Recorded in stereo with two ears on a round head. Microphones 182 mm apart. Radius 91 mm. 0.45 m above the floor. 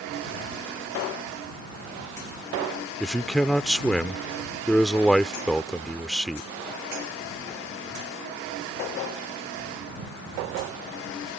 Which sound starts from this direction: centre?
A man speaking, at 3.0 s.